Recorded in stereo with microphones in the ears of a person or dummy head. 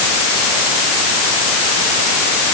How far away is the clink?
I don't hear a clink.